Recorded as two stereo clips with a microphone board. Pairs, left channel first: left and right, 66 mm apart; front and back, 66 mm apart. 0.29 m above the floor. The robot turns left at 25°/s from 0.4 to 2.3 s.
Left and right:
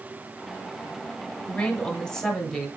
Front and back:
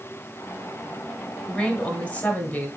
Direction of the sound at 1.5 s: 45° left.